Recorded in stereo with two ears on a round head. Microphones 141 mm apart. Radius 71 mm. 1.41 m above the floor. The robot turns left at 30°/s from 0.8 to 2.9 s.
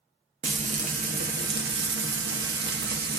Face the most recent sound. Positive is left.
turn(degrees=-110)